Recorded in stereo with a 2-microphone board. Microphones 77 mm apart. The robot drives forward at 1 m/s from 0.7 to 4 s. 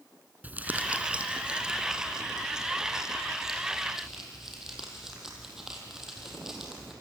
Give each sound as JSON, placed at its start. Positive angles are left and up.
{"t": 0.4, "sound": "crumpling", "side_deg": -20, "distance_m": 1.4}